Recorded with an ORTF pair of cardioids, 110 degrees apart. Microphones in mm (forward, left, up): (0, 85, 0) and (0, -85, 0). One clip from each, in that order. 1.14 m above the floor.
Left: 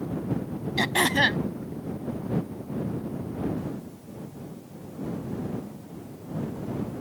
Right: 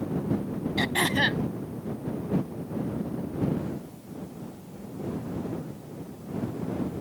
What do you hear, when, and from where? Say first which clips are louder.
0.8 s throat clearing: left 3 dB; 25° left